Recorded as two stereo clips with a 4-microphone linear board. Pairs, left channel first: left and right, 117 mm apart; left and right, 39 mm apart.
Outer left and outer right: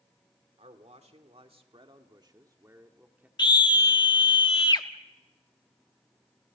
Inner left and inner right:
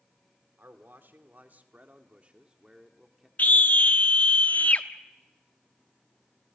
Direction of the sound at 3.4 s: 40° left (ahead or behind).